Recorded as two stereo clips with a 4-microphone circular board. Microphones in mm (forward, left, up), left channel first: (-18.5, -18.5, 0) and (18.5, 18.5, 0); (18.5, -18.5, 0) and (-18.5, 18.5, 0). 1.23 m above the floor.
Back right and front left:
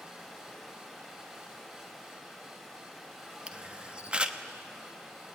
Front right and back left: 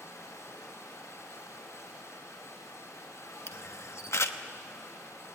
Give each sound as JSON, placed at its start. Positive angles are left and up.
{"t": 0.0, "sound": "running water", "azimuth_deg": -40, "distance_m": 5.0}
{"t": 3.5, "sound": "a camera shutter", "azimuth_deg": -25, "distance_m": 1.1}